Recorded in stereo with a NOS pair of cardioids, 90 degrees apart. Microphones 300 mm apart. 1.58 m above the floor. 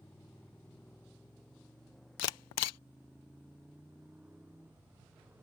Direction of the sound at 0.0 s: 5° left.